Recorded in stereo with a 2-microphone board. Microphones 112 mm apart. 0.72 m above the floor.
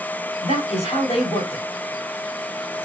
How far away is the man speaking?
About 3.5 m.